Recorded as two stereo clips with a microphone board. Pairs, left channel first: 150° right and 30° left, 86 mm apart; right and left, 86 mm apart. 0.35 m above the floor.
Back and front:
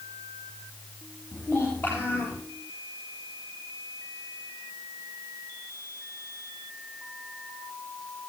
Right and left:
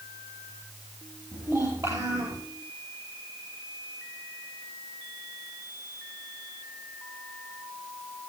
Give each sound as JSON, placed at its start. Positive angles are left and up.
{"t": 1.3, "sound": "a child speaking", "azimuth_deg": 145, "distance_m": 6.5}